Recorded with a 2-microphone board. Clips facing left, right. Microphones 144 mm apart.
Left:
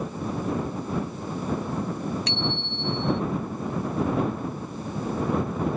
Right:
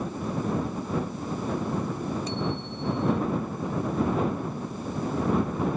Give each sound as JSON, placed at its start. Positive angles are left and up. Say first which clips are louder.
{"t": 2.3, "sound": "a bicycle bell", "louder": "even", "side_deg": 70}